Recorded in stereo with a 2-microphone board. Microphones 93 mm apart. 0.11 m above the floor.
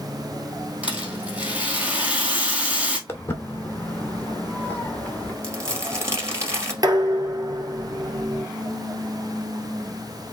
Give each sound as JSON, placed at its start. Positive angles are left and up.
{"t": 0.8, "sound": "a rattle", "side_deg": -10, "distance_m": 1.9}
{"t": 3.1, "sound": "footsteps", "side_deg": 25, "distance_m": 1.1}
{"t": 5.4, "sound": "crumpling", "side_deg": -30, "distance_m": 1.7}
{"t": 6.8, "sound": "dishes clattering", "side_deg": -45, "distance_m": 1.4}